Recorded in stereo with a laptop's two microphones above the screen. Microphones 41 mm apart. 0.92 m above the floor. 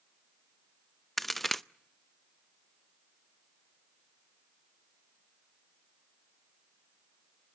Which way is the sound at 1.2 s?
5° left (ahead or behind).